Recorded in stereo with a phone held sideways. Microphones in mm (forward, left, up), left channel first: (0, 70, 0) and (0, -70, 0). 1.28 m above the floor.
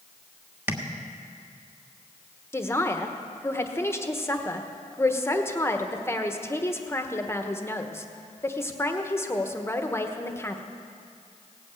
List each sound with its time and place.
0.7 s tapping: 15° right (ahead or behind), 1.4 m
2.5 s a man speaking: 20° left (ahead or behind), 1.1 m